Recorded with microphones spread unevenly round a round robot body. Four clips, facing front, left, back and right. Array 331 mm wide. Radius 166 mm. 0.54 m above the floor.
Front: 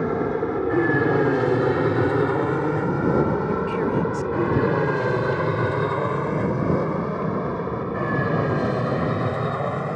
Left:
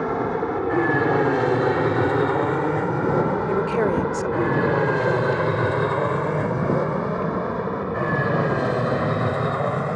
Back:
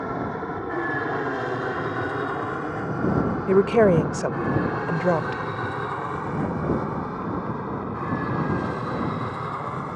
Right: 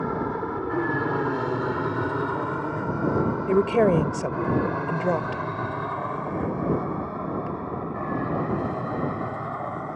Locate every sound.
0.0 s an aircraft: 25° left; by 9.9 s 55° left
3.5 s a woman speaking: 165° right